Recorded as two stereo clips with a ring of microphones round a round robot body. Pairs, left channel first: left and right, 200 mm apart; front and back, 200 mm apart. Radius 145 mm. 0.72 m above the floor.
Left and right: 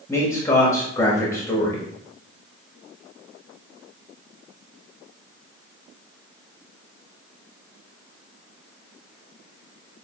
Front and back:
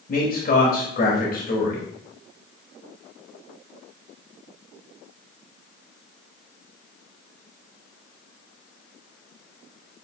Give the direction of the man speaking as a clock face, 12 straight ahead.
11 o'clock.